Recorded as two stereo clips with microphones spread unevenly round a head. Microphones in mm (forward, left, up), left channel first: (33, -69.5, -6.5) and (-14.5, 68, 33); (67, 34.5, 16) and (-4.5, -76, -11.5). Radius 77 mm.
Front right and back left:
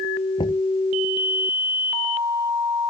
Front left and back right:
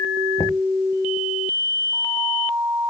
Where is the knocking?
10° right.